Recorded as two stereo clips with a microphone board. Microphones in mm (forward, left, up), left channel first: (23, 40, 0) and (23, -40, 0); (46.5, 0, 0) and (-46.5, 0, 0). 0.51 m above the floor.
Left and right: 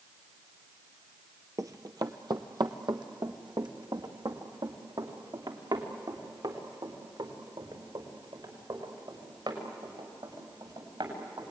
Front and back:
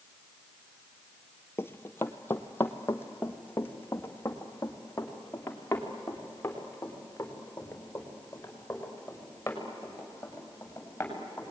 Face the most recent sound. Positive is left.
turn(degrees=-70)